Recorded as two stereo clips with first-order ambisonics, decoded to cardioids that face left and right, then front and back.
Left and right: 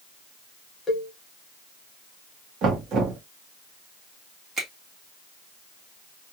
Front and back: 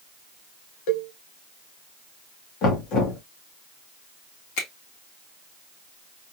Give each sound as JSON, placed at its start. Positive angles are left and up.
{"t": 0.9, "sound": "a cowbell", "azimuth_deg": 15, "distance_m": 1.3}
{"t": 2.6, "sound": "knocking", "azimuth_deg": -40, "distance_m": 1.6}
{"t": 4.6, "sound": "a finger snap", "azimuth_deg": -20, "distance_m": 2.0}